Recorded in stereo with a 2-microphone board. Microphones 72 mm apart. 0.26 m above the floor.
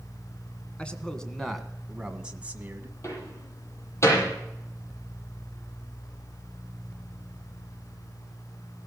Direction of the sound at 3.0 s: 40° left (ahead or behind).